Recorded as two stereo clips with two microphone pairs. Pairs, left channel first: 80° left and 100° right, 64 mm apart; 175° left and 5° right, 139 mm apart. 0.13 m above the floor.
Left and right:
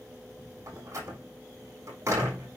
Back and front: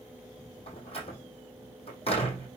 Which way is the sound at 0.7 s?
140° right.